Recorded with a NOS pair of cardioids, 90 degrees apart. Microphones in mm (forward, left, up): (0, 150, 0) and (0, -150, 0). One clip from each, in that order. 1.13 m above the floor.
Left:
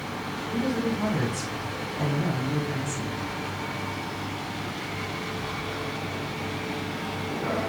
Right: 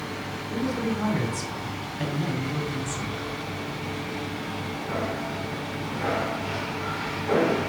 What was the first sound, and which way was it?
A man speaking, 10° right.